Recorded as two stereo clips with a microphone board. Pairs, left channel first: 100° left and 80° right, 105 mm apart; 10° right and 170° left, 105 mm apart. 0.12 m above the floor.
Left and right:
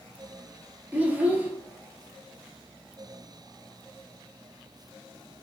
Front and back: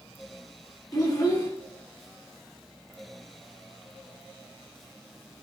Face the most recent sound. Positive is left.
turn(degrees=-20)